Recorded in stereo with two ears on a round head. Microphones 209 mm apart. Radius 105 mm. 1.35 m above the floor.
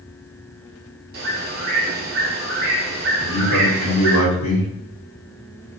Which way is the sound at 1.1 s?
40° right (ahead or behind).